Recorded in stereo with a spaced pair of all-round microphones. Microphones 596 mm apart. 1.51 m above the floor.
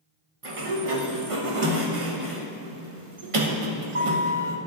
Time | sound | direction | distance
0.4 | a sliding door | 60° right (ahead or behind) | 1.1 m